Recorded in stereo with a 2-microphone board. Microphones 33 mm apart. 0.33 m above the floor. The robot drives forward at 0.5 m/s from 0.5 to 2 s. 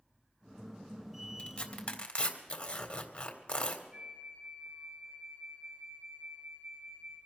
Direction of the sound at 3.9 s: 25° right (ahead or behind).